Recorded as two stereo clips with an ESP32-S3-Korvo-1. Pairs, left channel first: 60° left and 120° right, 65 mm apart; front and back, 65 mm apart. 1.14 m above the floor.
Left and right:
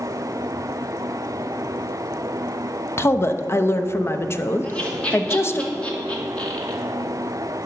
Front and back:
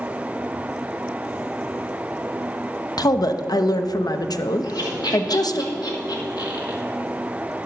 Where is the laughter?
10° right, 2 m.